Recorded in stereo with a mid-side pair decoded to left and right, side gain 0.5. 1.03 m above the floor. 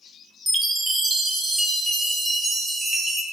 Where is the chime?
10° right, 0.5 m.